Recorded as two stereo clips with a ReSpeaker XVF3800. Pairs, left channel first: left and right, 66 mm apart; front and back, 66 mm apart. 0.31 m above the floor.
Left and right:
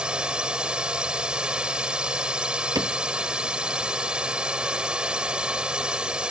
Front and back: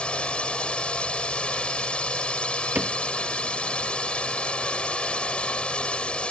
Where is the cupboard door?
115° right.